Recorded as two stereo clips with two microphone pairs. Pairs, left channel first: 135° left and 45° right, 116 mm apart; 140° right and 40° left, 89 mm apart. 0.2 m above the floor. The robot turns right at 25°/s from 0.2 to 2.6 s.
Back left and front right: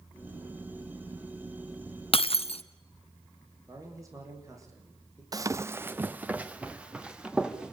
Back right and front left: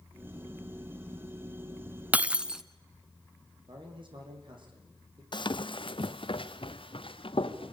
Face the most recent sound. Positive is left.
turn(degrees=-130)